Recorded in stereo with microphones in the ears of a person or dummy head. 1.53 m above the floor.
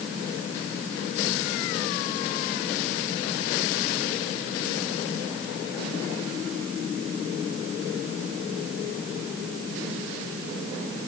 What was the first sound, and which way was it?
Only background noise.